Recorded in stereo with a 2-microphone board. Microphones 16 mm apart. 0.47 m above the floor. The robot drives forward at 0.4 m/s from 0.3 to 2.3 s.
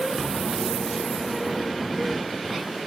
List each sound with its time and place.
0.1 s a drawer: centre (ahead or behind), 3.5 m